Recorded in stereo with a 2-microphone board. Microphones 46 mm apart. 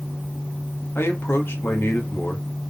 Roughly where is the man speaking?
Left.